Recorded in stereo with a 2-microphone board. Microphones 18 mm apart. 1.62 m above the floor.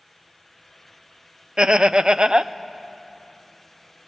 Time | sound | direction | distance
1.6 | laughter | 50° right (ahead or behind) | 0.6 m